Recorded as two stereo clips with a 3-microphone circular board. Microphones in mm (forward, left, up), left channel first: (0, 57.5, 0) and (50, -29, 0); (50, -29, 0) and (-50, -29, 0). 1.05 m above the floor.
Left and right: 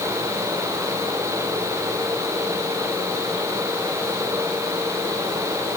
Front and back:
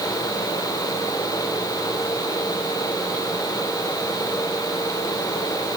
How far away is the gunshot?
I don't hear a gunshot.